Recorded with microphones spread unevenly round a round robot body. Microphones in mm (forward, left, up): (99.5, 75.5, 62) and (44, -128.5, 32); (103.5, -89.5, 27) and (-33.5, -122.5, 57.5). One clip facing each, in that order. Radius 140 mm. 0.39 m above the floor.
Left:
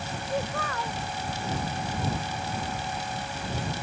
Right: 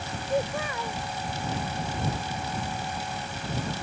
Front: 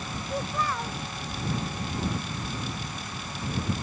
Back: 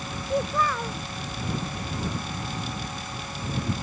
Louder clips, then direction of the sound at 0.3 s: Right 3 dB, back 5 dB; 175° left.